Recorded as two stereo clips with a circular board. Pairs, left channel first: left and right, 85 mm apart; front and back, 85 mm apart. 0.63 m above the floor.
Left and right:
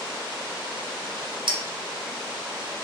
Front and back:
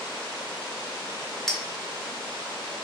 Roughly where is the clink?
Right.